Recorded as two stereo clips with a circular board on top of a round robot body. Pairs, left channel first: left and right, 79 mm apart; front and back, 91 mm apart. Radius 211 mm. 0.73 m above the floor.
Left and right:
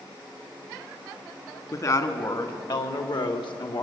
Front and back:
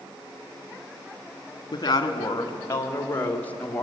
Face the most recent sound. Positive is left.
turn(degrees=80)